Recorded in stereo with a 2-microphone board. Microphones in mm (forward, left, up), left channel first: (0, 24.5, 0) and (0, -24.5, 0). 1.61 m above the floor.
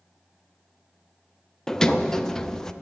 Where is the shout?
No shout in this recording.